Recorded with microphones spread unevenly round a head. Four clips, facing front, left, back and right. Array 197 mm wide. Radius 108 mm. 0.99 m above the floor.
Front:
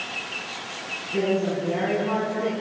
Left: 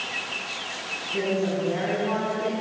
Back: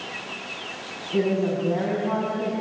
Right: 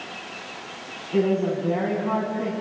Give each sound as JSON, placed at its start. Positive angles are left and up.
{"t": 1.1, "sound": "a woman speaking", "azimuth_deg": -125, "distance_m": 9.5}